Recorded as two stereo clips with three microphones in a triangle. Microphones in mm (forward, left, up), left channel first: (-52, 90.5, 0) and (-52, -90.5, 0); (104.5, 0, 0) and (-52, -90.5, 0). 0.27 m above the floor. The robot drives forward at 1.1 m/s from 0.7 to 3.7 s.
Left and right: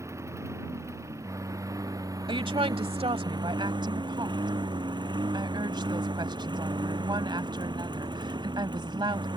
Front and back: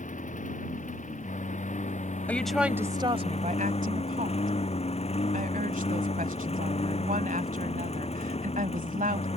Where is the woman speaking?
45° right; by 9.3 s 145° right.